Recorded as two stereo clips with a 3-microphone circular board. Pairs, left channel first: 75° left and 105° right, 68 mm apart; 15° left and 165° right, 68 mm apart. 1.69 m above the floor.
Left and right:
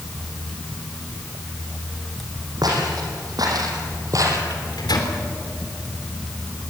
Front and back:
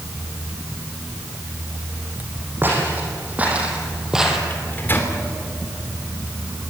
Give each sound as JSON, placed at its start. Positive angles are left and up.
{"t": 2.6, "sound": "footsteps", "azimuth_deg": -105, "distance_m": 5.5}
{"t": 4.5, "sound": "a microwave", "azimuth_deg": 75, "distance_m": 3.5}